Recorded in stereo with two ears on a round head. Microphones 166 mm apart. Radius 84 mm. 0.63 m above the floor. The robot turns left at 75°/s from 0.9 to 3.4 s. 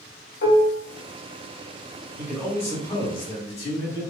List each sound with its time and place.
0.4 s dishes clattering: 60° left (ahead or behind), 1.2 m
2.2 s a man speaking: 165° right, 1.6 m; by 4.0 s 105° left, 1.6 m